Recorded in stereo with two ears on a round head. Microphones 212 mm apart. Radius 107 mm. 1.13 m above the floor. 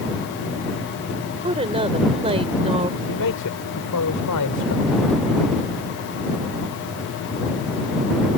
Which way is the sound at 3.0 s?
80° left.